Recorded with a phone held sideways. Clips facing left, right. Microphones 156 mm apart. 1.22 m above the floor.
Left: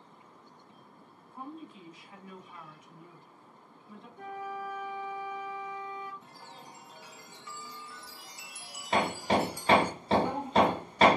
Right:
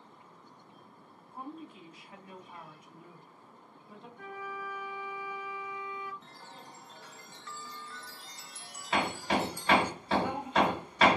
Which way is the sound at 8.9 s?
35° left (ahead or behind).